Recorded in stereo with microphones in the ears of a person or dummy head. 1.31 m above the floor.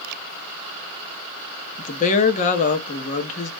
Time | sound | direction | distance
1.8 | a woman speaking | 40° left (ahead or behind) | 0.7 m